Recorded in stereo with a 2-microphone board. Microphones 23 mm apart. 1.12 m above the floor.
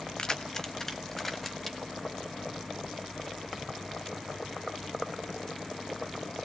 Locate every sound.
0.2 s keys jangling: 30° left (ahead or behind), 0.8 m; by 1.8 s 5° left (ahead or behind), 1.6 m